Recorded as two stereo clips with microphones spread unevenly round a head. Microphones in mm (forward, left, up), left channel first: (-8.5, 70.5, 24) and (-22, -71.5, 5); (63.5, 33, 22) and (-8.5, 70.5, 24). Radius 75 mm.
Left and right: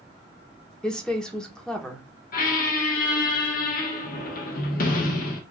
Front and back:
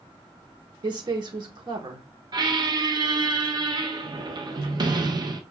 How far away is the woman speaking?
About 0.9 m.